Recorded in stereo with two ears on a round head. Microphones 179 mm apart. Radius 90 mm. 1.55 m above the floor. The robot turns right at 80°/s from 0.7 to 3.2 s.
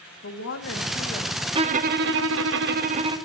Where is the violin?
150° right, 1.5 m; by 3.2 s 25° right, 1.5 m.